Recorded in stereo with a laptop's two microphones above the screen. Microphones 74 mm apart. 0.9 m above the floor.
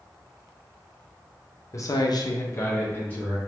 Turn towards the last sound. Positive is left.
turn(degrees=15)  # may be behind; listen again after turning